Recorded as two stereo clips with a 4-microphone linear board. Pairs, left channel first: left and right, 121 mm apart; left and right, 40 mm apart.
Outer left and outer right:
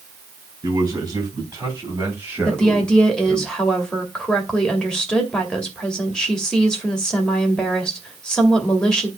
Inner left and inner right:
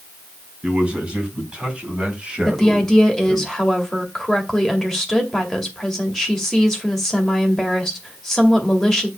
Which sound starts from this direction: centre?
A woman speaking, at 2.5 s.